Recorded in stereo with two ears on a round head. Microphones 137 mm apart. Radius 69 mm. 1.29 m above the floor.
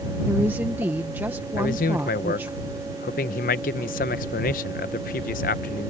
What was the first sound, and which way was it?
A woman speaking, 10° right (ahead or behind).